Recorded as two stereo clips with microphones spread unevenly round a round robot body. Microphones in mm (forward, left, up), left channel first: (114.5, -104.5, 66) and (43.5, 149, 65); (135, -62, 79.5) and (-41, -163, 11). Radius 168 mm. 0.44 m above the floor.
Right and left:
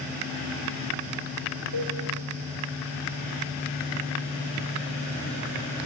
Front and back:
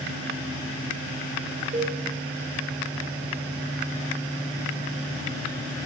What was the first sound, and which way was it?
A cowbell, 100° right.